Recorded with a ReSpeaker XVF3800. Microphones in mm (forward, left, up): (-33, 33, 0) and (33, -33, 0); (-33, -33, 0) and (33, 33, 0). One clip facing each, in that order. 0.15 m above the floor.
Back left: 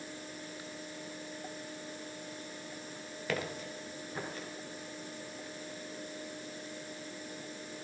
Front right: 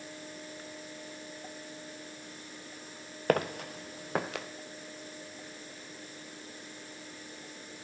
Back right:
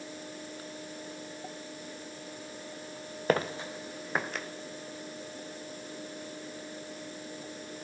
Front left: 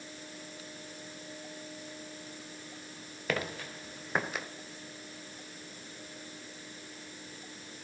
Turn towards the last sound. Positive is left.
turn(degrees=-40)